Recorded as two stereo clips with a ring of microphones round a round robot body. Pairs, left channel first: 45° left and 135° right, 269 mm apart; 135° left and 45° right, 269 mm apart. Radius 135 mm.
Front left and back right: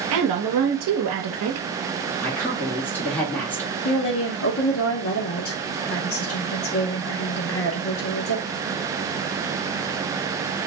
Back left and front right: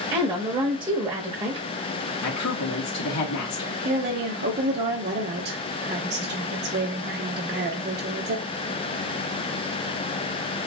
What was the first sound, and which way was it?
A woman speaking, 115° right.